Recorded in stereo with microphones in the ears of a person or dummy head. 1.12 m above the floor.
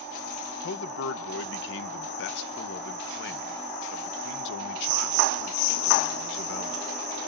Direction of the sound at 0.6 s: 65° left (ahead or behind).